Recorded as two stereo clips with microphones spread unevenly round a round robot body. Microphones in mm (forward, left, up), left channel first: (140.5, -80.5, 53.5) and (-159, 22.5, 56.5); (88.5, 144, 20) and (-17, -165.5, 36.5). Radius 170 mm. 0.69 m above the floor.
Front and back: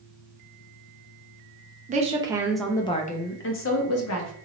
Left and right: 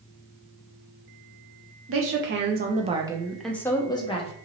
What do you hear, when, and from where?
1.9 s a woman speaking: 140° right, 0.7 m; by 4.3 s 5° left, 0.9 m